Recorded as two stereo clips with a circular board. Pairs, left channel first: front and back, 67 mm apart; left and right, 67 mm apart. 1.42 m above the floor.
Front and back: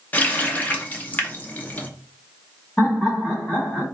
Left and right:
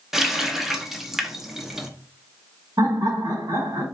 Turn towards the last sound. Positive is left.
turn(degrees=-75)